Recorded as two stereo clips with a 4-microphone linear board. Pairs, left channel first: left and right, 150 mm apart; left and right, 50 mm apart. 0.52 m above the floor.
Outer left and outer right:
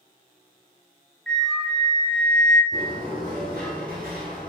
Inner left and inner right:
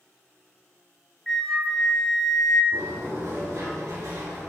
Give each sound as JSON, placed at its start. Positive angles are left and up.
{"t": 1.3, "sound": "a flute", "side_deg": 5, "distance_m": 0.9}
{"t": 2.7, "sound": "a sliding door", "side_deg": -75, "distance_m": 4.0}